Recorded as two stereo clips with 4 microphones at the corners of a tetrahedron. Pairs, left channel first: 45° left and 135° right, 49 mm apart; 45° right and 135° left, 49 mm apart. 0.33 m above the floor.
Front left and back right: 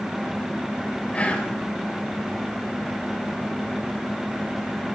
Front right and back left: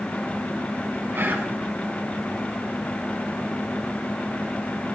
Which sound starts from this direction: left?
Whispering, at 1.1 s.